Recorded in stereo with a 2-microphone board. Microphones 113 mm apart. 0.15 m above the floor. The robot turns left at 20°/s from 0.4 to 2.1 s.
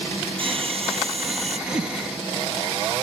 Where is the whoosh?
45° right (ahead or behind); by 2.0 s 50° right (ahead or behind).